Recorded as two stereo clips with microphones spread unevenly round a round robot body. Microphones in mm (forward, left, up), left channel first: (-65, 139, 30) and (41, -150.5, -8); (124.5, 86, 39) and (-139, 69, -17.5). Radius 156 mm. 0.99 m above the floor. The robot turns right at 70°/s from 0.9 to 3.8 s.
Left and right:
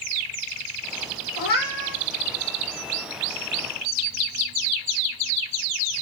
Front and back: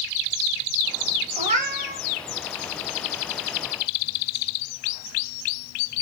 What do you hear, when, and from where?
1.4 s a cat meowing: 105° left, 0.9 m; by 2.0 s 150° left, 0.9 m